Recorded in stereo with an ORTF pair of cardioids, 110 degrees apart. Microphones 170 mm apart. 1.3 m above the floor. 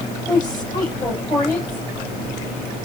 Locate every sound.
0.3 s a woman speaking: 15° left, 7 m